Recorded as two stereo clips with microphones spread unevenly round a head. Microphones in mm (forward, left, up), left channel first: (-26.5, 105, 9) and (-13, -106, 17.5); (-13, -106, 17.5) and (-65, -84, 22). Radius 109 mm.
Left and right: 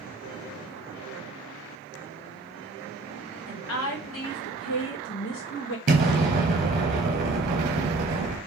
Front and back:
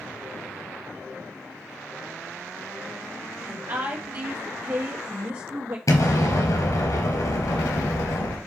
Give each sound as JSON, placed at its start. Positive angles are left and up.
{"t": 3.5, "sound": "a woman speaking", "azimuth_deg": 110, "distance_m": 2.5}
{"t": 5.9, "sound": "an explosion", "azimuth_deg": -35, "distance_m": 3.5}